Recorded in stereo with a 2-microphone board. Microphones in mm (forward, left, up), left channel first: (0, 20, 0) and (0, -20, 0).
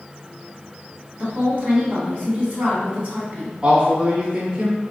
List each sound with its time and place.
1.2 s a woman speaking: 40° right (ahead or behind), 1.8 m
3.6 s a man speaking: 25° right (ahead or behind), 1.2 m